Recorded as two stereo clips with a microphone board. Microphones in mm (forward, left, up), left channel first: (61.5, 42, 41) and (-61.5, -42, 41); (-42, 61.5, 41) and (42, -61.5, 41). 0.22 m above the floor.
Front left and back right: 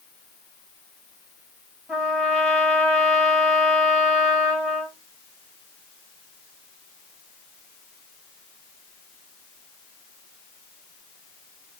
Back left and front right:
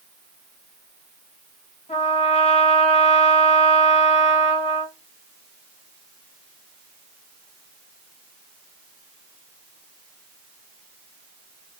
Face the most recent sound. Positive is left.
turn(degrees=130)